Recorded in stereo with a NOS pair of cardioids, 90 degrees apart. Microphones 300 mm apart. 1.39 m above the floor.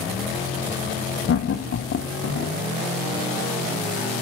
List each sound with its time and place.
1.3 s laughter: 50° left, 1.2 m